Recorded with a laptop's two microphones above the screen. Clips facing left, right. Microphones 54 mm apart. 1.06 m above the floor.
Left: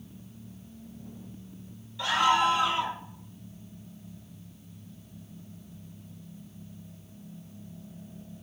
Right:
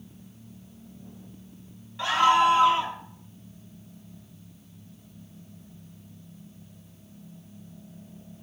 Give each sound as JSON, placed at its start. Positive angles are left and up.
{"t": 2.0, "sound": "a scream", "side_deg": -30, "distance_m": 2.0}